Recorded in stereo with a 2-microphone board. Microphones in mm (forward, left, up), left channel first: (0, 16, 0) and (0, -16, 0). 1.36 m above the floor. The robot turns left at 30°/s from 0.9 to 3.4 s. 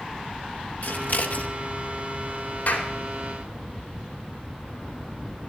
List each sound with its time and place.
0.8 s scissors: 65° left (ahead or behind), 1.0 m; by 1.5 s 60° left (ahead or behind), 1.0 m
2.7 s a clap: 55° left (ahead or behind), 3 m; by 2.9 s 50° left (ahead or behind), 3 m